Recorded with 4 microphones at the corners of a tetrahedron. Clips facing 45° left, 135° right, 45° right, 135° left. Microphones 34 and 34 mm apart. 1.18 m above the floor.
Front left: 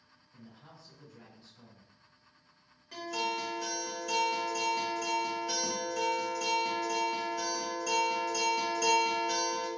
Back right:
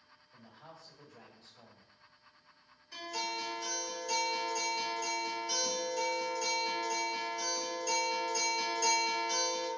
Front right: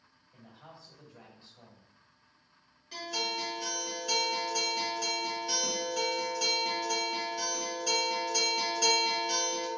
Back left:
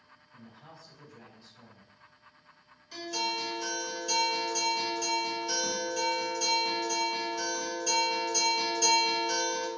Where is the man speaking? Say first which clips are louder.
Even, back left 1 dB; 100° right, 1.1 m.